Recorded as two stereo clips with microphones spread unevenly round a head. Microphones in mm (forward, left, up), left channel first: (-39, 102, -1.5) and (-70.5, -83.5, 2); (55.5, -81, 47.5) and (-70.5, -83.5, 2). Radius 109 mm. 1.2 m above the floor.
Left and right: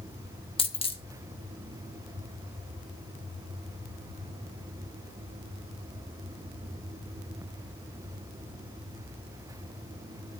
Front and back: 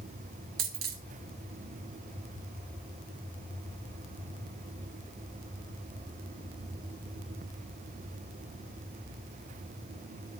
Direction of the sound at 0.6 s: 140° left.